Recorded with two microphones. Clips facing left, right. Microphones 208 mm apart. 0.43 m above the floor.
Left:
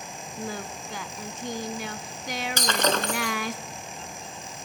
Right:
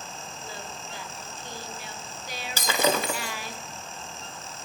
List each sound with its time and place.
0.4 s singing: 75° left (ahead or behind), 0.8 m
2.6 s breaking glass: 10° right (ahead or behind), 1.1 m